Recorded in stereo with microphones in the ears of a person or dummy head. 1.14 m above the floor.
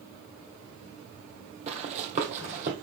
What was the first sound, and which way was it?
Running footsteps, 35° right (ahead or behind).